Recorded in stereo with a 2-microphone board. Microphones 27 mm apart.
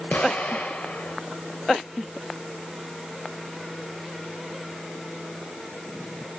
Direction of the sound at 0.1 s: 70° left (ahead or behind).